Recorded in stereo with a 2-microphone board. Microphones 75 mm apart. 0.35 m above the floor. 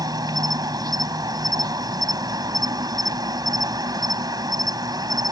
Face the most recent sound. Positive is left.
turn(degrees=-65)  # may be behind; listen again after turning